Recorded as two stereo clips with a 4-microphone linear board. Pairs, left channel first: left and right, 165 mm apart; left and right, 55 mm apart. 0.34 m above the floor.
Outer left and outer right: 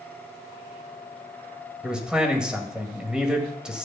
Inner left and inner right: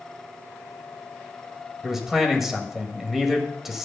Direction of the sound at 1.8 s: 5° right (ahead or behind).